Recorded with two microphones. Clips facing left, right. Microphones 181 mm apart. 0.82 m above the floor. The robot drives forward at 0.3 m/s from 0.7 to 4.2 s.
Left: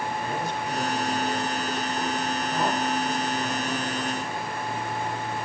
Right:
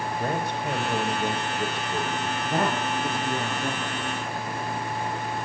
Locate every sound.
0.2 s a man speaking: 65° right (ahead or behind), 4.5 m; by 2.3 s 70° right (ahead or behind), 4.5 m
2.4 s a woman speaking: 60° right (ahead or behind), 7 m